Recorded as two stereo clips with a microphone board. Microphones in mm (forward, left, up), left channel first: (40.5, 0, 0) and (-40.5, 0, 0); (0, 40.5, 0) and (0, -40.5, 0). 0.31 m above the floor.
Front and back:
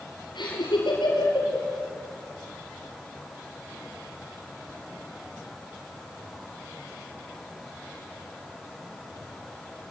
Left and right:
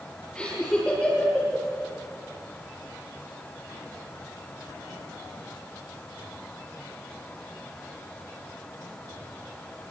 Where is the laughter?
10° left, 6 m.